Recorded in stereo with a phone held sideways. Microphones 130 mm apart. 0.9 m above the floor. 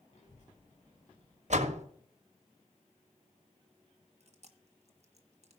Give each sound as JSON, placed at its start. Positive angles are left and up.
{"t": 0.1, "sound": "a child speaking", "side_deg": 60, "distance_m": 1.8}
{"t": 1.5, "sound": "a door slam", "side_deg": -60, "distance_m": 1.2}
{"t": 4.2, "sound": "chewing", "side_deg": -55, "distance_m": 1.3}